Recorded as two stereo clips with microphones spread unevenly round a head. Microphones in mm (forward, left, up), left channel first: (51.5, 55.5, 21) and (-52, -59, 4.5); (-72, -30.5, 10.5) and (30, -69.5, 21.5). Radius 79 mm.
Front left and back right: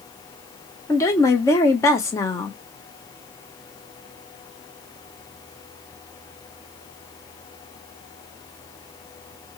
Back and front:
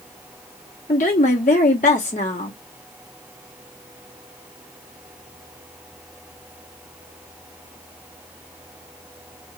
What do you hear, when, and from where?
0.9 s a woman speaking: 120° left, 0.9 m